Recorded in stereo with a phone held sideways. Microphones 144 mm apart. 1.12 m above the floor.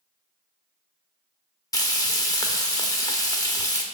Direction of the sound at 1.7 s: 25° left (ahead or behind).